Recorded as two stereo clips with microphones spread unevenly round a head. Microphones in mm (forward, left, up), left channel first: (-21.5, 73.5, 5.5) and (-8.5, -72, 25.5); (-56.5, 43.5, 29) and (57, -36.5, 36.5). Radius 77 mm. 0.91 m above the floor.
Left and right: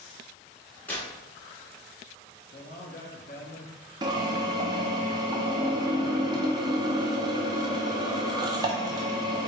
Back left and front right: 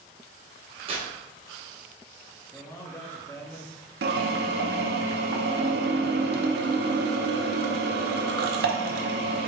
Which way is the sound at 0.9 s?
15° left.